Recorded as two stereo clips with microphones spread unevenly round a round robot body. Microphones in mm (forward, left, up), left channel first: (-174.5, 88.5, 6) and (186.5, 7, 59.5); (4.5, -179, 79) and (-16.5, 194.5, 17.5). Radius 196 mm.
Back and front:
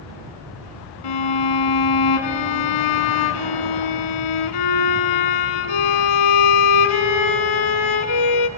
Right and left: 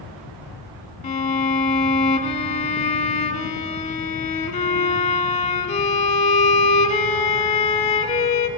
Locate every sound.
1.0 s a violin: 155° right, 1.3 m